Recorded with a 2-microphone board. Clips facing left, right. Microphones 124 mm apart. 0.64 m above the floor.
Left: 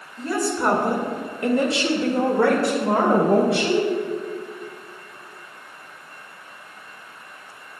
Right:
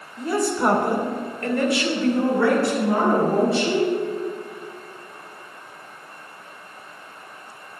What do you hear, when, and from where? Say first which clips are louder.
0.2 s a woman speaking: right 2 dB; 15° right (ahead or behind), 2 m; by 3.9 s 75° left (ahead or behind), 2.5 m